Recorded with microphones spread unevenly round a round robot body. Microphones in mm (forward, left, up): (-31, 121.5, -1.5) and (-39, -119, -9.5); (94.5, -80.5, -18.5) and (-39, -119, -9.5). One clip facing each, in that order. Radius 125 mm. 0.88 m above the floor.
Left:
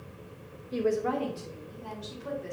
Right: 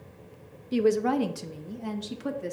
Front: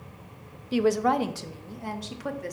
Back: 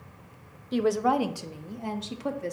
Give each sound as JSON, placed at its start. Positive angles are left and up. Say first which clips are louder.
{"t": 0.7, "sound": "a woman speaking", "louder": "right 5 dB, front 1 dB", "azimuth_deg": -60, "distance_m": 0.6}